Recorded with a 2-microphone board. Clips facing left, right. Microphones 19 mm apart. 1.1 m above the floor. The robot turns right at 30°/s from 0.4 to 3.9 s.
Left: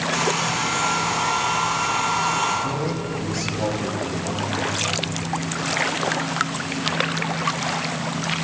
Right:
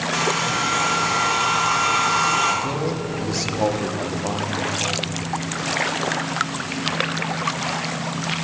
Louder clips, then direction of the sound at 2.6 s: Right 1 dB; 160° right.